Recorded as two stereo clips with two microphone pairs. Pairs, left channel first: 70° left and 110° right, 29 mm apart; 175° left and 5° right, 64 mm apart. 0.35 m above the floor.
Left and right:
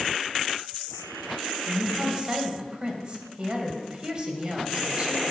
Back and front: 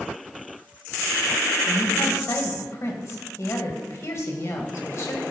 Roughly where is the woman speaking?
Behind.